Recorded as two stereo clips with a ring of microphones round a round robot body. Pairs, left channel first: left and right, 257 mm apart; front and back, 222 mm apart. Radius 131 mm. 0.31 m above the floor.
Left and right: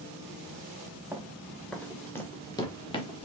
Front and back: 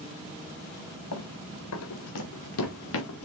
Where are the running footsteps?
5° right, 2 m; by 3.3 s 20° left, 2.5 m.